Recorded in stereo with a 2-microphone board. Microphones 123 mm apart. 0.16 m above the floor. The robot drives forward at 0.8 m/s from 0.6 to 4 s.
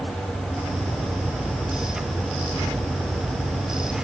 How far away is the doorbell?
No doorbell in this recording.